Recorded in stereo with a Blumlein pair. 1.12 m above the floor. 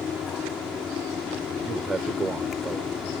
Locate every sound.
0.0 s a fan: 20° left
1.6 s a man speaking: 15° right